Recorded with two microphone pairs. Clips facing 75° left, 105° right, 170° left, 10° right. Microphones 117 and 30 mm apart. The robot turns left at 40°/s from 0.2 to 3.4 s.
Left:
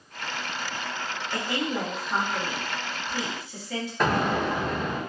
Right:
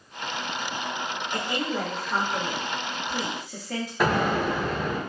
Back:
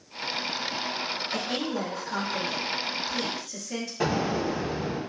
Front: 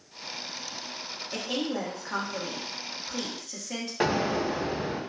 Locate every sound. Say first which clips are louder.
1.3 s a woman speaking: left 1 dB, front 2 dB; 20° left, 1.1 m; by 3.9 s 65° right, 1.1 m
4.0 s an explosion: right 1 dB, front 1 dB; 25° right, 0.8 m